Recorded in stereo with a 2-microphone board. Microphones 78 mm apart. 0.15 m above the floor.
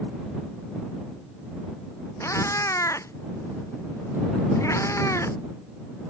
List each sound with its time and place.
2.2 s a cat meowing: 40° left (ahead or behind)